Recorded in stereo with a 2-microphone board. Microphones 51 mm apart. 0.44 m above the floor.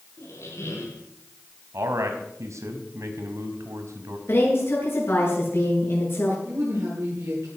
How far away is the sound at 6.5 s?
About 9 m.